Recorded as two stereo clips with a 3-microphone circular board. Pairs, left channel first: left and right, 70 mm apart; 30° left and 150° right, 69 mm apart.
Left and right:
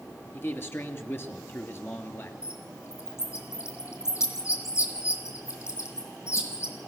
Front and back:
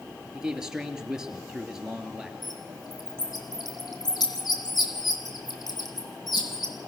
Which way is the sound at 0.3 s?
135° left.